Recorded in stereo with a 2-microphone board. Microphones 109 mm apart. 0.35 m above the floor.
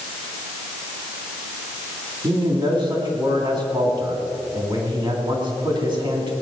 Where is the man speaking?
45° right (ahead or behind), 3.5 m.